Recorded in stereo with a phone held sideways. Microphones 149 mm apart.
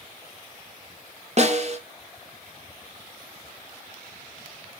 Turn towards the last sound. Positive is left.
turn(degrees=-45)  # may be behind; listen again after turning